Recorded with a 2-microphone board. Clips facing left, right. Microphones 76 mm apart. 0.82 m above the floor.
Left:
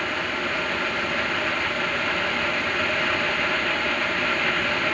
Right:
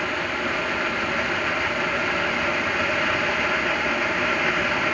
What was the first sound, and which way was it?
Only background noise.